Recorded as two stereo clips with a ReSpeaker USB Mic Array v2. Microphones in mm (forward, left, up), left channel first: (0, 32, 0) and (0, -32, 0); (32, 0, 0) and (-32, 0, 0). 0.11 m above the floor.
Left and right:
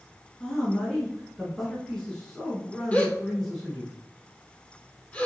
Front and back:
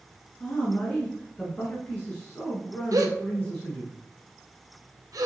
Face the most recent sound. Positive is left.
turn(degrees=160)